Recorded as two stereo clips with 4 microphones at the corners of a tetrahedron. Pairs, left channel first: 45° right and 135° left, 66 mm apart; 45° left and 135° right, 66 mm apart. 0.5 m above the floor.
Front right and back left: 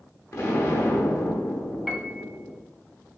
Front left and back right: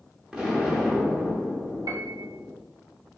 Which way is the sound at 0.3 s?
60° right.